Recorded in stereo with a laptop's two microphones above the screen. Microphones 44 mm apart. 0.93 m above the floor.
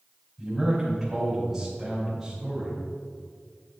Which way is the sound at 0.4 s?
5° right (ahead or behind).